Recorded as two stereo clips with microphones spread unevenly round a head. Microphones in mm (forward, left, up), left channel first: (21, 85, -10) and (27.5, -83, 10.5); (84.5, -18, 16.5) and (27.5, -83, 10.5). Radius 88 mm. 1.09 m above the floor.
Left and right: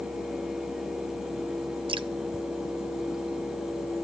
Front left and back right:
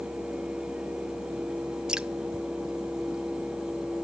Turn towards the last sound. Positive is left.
turn(degrees=-45)